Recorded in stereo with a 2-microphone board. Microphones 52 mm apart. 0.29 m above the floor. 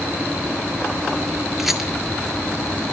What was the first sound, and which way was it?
A rattle, 5° right (ahead or behind).